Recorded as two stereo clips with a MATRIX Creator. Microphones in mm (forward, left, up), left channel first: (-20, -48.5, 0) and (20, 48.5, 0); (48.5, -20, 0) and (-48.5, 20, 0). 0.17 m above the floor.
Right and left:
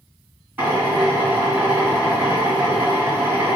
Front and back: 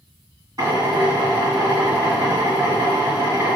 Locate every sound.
0.6 s a drill: 125° left, 1.9 m